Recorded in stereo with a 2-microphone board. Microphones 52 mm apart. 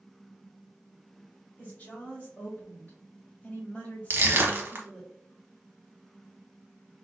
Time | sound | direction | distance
1.6 | a woman speaking | 30° left (ahead or behind) | 2.0 m
4.1 | crushing | 45° right (ahead or behind) | 0.8 m